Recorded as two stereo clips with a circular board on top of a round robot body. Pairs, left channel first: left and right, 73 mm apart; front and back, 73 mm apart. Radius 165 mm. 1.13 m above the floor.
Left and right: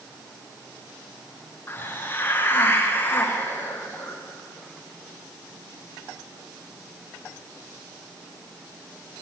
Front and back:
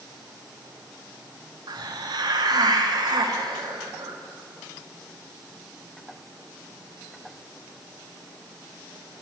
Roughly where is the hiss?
Behind left.